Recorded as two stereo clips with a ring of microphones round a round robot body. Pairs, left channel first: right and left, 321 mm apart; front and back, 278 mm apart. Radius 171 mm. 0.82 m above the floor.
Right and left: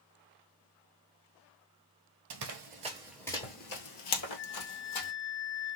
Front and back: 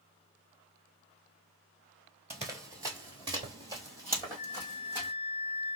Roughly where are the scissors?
No scissors in this recording.